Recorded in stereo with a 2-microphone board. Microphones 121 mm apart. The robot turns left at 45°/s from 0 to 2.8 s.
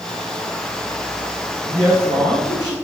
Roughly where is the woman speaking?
Ahead.